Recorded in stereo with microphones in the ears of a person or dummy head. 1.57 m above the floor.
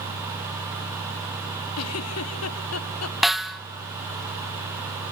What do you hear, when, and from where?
1.8 s a giggle: 85° left, 1.2 m
3.2 s a snare drum: 5° left (ahead or behind), 0.7 m